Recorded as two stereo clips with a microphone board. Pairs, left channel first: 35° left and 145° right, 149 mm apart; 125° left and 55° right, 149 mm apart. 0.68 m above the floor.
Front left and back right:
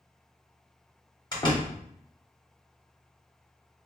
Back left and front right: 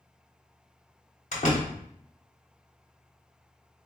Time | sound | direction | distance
1.3 | a door slam | 90° left | 1.0 m